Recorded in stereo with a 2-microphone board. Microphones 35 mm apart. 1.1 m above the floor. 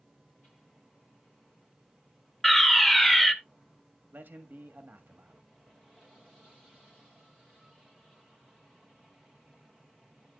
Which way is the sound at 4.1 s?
55° right (ahead or behind).